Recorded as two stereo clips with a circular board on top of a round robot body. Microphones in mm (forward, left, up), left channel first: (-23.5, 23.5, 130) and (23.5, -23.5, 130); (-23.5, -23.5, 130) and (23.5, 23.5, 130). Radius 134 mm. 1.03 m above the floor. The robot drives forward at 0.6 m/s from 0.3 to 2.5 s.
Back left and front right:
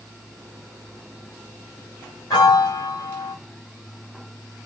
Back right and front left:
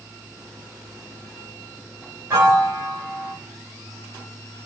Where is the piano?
105° left, 1.4 m; by 3.4 s 110° left, 1.4 m.